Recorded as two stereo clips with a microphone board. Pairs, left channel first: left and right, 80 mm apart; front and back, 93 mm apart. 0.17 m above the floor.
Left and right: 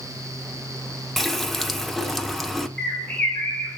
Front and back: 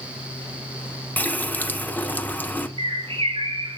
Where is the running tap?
10° left, 0.7 m.